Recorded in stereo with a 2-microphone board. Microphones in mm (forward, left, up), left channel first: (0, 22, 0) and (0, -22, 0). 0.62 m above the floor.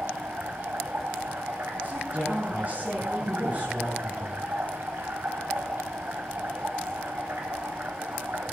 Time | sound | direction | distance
0.0 | running water | 55° right (ahead or behind) | 3.5 m
1.8 | a woman speaking | 40° right (ahead or behind) | 8.5 m